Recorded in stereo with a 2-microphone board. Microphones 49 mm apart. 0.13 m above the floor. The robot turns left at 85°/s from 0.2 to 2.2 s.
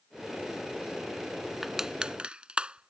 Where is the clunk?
No clunk in this recording.